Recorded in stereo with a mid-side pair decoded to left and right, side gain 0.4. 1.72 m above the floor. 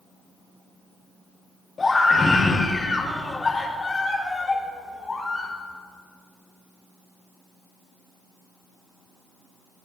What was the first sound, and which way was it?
A scream, 40° left.